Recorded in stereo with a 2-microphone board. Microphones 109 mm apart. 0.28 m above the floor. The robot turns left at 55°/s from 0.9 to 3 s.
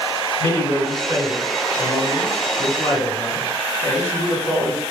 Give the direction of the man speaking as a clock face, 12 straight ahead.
7 o'clock.